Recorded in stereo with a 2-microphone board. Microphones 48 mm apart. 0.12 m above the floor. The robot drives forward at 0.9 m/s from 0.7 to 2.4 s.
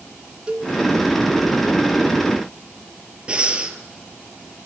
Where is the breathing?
25° right (ahead or behind), 1.1 m.